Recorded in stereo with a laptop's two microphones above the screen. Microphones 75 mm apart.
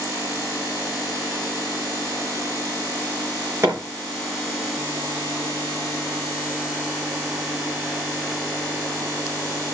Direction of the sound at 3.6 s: 35° right (ahead or behind).